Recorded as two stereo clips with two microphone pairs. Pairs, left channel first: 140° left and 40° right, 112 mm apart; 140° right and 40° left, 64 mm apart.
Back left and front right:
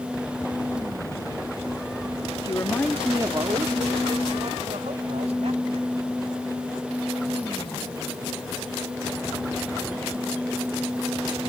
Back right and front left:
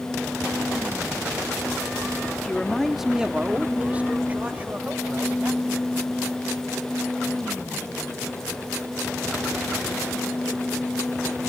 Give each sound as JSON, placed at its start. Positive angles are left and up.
{"t": 2.4, "sound": "a man speaking", "azimuth_deg": 155}